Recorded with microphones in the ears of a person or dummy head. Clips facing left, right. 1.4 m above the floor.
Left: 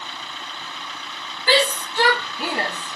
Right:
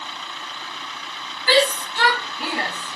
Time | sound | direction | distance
1.5 | a shout | 65° left (ahead or behind) | 1.5 m